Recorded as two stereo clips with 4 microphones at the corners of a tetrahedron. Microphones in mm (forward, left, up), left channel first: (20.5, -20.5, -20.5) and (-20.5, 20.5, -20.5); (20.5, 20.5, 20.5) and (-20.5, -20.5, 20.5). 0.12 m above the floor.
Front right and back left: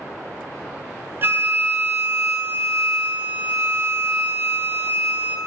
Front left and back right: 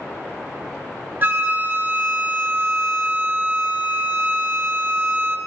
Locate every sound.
1.2 s a flute: 175° left, 0.5 m